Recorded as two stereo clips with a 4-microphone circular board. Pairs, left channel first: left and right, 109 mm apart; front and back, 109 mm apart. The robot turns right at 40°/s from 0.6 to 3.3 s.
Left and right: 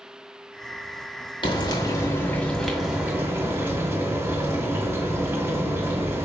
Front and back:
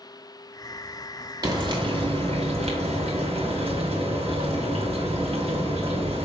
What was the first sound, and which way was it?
Frying, 130° left.